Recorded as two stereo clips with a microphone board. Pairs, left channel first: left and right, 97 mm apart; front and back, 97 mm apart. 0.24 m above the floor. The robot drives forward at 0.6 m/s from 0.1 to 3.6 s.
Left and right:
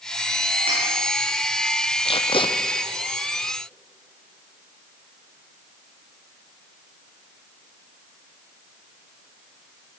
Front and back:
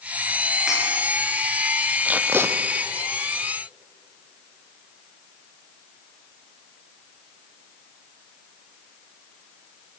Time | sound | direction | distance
0.7 | cutlery clinking | 95° right | 9.5 m
2.0 | tape being pulled | 105° left | 1.4 m